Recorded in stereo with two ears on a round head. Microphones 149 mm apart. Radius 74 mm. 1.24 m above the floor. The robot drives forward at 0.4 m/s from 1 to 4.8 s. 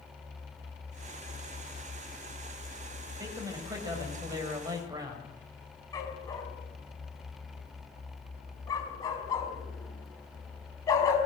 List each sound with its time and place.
3.2 s a man speaking: 20° right (ahead or behind), 6.5 m; by 5.3 s 25° right (ahead or behind), 6 m
5.9 s a dog barking: 20° left (ahead or behind), 5 m